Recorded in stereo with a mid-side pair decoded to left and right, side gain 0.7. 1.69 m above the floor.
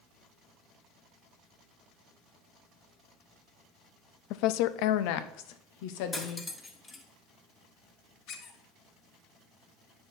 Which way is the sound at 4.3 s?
65° left.